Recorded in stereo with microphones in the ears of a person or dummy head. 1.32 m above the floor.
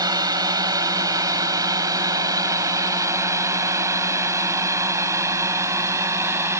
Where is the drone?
20° right (ahead or behind); by 6.6 s 10° right (ahead or behind).